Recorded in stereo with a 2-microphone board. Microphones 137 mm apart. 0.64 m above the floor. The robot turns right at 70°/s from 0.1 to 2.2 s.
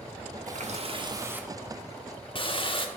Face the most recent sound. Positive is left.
turn(degrees=45)